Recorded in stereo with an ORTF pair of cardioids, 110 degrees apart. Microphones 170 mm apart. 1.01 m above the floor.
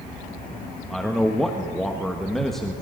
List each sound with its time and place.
0.9 s a man speaking: straight ahead, 1.0 m